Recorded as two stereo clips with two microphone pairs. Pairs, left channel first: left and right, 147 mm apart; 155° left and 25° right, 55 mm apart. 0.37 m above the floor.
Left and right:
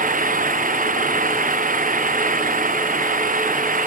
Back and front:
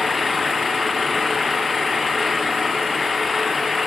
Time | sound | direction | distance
0.0 | an engine running | 115° right | ?